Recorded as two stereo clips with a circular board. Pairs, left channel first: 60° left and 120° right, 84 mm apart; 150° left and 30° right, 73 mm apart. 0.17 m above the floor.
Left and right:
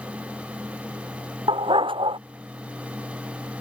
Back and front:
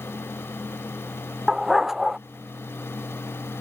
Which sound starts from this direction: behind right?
A dog barking, at 1.5 s.